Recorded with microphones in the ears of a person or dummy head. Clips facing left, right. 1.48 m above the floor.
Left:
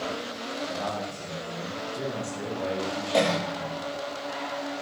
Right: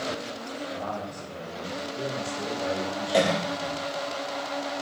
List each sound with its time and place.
0.7 s a man speaking: 35° left (ahead or behind), 1.3 m
3.1 s a cough: 10° right (ahead or behind), 0.6 m